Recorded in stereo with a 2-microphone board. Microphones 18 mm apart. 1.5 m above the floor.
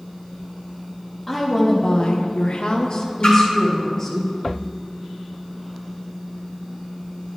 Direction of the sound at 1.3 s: 20° left (ahead or behind).